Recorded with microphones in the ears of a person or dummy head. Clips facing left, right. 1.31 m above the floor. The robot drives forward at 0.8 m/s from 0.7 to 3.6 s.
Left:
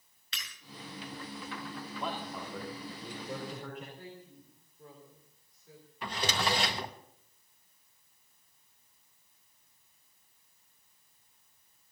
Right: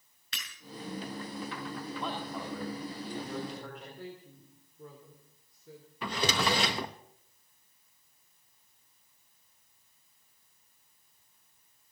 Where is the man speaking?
5° left (ahead or behind), 3 m.